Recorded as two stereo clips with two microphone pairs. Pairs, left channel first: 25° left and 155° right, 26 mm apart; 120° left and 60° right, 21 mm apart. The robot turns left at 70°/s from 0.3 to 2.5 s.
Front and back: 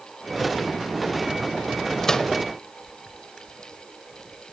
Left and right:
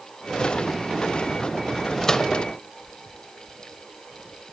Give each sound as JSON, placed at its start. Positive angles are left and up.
{"t": 2.0, "sound": "a microwave", "azimuth_deg": 80, "distance_m": 1.0}